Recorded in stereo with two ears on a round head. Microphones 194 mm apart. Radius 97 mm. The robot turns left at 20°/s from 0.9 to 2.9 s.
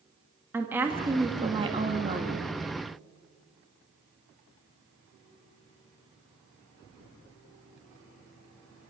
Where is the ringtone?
No ringtone in this recording.